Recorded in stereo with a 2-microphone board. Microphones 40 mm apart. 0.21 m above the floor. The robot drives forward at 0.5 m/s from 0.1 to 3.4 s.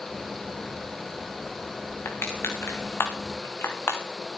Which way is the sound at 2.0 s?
75° left (ahead or behind).